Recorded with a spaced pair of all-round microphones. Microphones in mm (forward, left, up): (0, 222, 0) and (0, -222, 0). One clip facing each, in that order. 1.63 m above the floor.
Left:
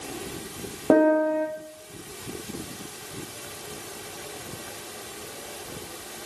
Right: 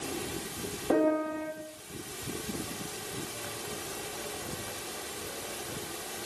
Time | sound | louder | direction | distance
0.9 | a piano | left 8 dB | 70° left (ahead or behind) | 1.9 m